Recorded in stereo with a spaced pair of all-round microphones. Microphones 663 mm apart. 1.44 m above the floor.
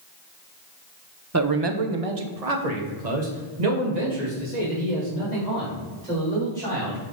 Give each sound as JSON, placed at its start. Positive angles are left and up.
{"t": 1.3, "sound": "a man speaking", "side_deg": -25, "distance_m": 0.7}